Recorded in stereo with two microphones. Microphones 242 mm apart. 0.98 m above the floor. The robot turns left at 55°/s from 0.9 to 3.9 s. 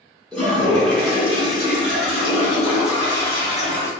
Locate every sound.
0.3 s a toilet flushing: 175° left, 1.0 m; by 3.9 s 10° left, 1.0 m